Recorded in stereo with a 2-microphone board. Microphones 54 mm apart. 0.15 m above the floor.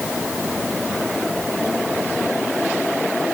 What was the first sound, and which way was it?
Only background noise.